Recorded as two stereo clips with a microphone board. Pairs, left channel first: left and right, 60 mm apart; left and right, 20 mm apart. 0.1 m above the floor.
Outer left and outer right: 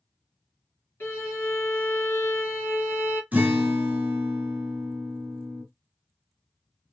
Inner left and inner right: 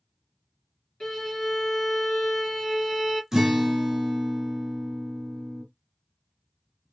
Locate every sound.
1.0 s a violin: 45° left (ahead or behind), 2.5 m
3.3 s a guitar: 25° right (ahead or behind), 1.6 m